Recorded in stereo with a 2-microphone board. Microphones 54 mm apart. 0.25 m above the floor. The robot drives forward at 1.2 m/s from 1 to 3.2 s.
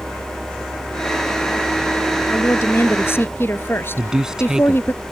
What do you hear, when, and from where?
2.3 s a woman speaking: 55° left (ahead or behind); by 5.0 s 45° left (ahead or behind)
4.0 s a man speaking: 10° right (ahead or behind)